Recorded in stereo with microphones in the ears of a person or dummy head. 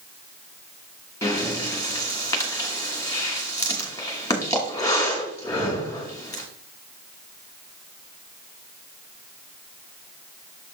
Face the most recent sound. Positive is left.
turn(degrees=15)  # may be behind; listen again after turning